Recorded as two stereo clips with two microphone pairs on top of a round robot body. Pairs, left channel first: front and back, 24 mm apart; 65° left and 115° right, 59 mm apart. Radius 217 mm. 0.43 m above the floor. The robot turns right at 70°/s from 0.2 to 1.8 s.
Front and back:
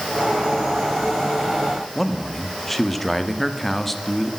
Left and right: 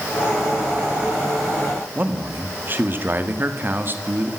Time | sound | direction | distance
1.9 | a man speaking | 80° right | 1.7 m